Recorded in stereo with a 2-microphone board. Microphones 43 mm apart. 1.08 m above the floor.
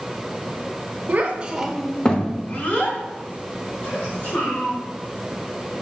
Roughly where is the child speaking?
Right.